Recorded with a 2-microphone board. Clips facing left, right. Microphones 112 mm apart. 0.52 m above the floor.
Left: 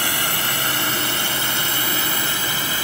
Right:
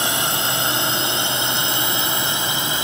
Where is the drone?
20° right (ahead or behind).